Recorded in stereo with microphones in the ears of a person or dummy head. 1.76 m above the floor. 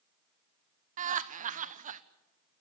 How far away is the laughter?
About 1.1 m.